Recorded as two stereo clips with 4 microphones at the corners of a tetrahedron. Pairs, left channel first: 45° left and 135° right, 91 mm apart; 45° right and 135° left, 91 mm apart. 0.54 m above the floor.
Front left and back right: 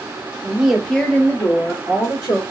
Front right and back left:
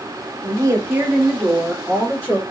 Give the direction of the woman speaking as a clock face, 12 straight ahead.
7 o'clock.